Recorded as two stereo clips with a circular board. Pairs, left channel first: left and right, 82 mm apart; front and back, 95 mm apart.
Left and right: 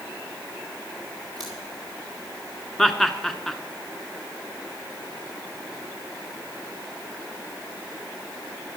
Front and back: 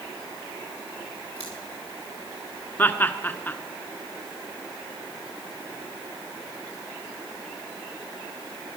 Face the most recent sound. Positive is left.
turn(degrees=10)